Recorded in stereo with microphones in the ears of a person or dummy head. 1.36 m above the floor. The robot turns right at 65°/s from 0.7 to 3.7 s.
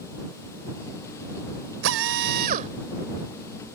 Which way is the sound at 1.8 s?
100° right.